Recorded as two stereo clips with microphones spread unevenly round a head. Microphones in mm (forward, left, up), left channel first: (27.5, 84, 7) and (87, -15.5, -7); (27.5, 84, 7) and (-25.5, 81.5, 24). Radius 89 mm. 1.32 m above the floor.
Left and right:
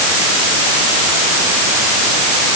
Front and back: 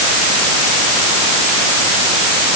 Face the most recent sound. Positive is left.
No sound to turn to.